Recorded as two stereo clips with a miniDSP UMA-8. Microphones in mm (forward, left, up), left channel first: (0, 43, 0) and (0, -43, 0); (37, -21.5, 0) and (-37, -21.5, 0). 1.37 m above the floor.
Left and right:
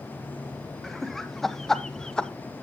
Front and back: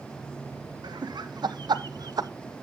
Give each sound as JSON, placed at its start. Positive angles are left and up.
{"t": 0.8, "sound": "laughter", "azimuth_deg": 180, "distance_m": 1.3}